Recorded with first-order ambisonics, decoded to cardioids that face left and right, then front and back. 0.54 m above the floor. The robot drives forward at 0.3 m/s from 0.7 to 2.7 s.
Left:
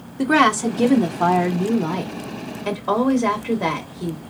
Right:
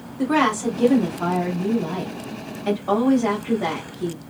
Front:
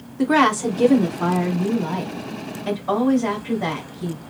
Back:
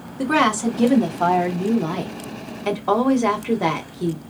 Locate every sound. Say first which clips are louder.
0.2 s a woman speaking: left 4 dB, front 1 dB; 75° left, 0.7 m; by 4.2 s 155° left, 0.9 m